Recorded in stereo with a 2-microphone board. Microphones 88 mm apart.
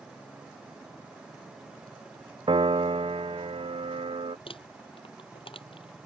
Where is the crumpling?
85° left.